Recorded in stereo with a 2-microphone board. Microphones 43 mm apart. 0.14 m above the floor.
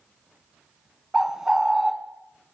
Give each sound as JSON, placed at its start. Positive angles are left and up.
{"t": 1.1, "sound": "a bird", "side_deg": -10, "distance_m": 0.5}